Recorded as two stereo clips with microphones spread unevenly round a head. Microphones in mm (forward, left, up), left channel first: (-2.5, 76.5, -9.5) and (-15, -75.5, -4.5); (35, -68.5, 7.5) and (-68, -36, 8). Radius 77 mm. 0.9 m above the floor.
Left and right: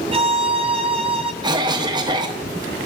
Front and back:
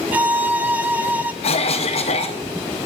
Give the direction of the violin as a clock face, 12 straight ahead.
4 o'clock.